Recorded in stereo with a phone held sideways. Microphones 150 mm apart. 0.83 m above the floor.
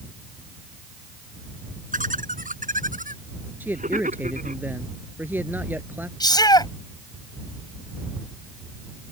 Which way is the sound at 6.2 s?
30° left (ahead or behind).